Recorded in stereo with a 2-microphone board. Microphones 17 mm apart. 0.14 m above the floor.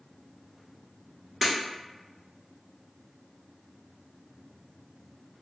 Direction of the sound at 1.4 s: 10° left (ahead or behind).